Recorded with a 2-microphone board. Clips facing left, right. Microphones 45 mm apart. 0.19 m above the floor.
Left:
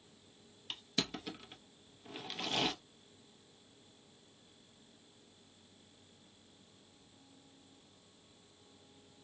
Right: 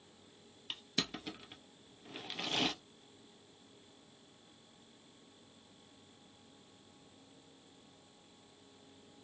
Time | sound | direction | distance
0.7 | crushing | 5° right (ahead or behind) | 0.6 m